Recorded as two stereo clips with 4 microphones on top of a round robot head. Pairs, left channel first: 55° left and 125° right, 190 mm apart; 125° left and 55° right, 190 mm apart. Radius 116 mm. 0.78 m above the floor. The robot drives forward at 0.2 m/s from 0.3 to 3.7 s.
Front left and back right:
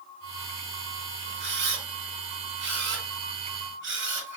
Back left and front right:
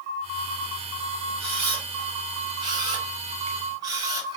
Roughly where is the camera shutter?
Behind right.